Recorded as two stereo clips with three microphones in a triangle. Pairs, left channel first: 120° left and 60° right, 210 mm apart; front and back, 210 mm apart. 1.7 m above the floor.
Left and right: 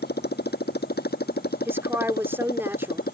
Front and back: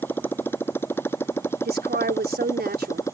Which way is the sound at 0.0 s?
80° left.